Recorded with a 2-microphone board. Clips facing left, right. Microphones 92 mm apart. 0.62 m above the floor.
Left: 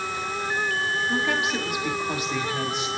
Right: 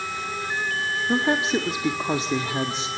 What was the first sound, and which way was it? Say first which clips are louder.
A woman speaking: right 7 dB; 30° right (ahead or behind).